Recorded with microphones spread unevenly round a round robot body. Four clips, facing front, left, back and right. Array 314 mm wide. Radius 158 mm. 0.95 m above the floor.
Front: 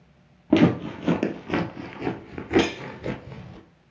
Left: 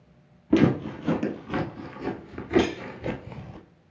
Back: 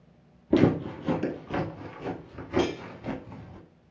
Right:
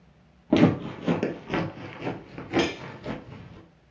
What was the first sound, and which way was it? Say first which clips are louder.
Footsteps: even, front 3 dB; 30° right.